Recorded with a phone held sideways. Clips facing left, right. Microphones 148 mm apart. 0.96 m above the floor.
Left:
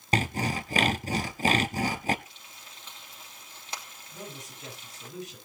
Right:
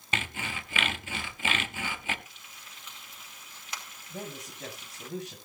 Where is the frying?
30° left (ahead or behind), 3 m.